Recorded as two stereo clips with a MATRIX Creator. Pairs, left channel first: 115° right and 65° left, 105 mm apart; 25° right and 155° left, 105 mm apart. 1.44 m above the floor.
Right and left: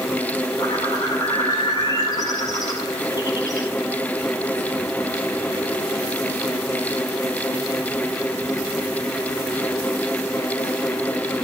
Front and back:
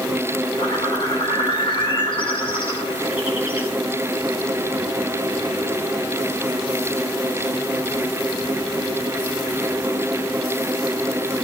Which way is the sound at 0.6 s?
60° right.